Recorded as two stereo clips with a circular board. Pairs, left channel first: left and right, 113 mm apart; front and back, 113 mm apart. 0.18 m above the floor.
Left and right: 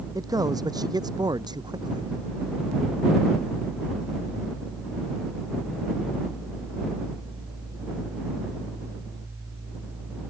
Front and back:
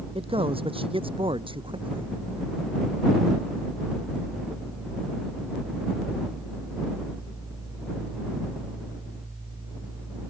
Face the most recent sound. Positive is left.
turn(degrees=-140)